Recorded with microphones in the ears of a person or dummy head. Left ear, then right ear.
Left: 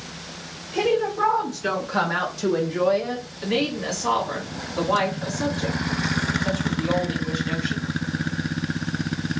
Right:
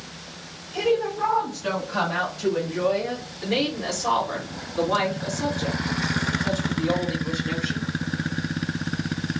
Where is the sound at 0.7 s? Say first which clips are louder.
Left 1 dB; 15° left (ahead or behind), 1.1 m; by 3.2 s 65° left (ahead or behind), 0.7 m.